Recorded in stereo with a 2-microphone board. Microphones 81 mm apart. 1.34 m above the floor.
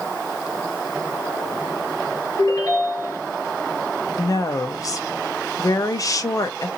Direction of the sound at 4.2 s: 45° left (ahead or behind).